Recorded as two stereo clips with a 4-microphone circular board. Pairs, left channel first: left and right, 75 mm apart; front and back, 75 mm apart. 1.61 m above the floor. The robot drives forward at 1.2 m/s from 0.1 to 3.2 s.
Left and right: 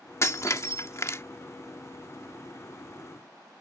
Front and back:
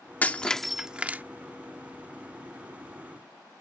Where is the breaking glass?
60° left; by 1.2 s 125° left.